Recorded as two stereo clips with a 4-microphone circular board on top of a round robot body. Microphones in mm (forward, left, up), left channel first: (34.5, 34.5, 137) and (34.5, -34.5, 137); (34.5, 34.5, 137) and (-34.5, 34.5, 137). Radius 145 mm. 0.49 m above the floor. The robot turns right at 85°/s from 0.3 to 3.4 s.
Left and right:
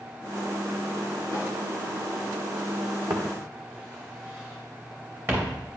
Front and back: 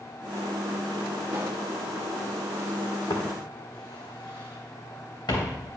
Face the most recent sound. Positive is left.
turn(degrees=-40)